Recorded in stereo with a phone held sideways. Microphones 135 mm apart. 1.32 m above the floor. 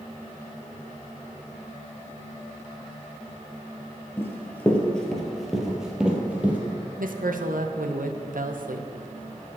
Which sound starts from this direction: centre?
Running footsteps, at 4.2 s.